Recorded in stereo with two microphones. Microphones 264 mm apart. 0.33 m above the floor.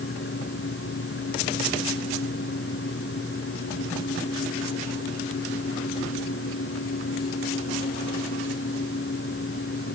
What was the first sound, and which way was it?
Only background noise.